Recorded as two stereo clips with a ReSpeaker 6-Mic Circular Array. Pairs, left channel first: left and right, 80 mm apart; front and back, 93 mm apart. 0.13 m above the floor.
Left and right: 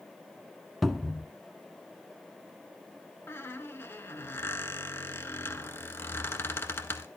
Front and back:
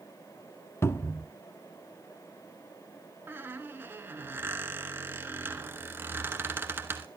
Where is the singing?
No singing in this recording.